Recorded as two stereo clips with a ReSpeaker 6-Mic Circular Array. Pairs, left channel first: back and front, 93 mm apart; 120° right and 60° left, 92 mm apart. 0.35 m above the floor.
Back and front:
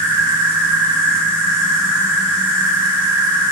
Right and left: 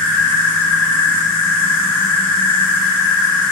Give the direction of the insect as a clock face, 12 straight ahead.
2 o'clock.